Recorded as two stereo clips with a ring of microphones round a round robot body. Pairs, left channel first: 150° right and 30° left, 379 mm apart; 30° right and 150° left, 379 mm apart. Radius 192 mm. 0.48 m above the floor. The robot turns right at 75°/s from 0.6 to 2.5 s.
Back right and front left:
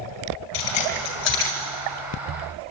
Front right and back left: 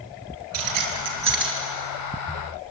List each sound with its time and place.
0.5 s keys jangling: 175° left, 5.5 m; by 1.5 s 115° right, 5.5 m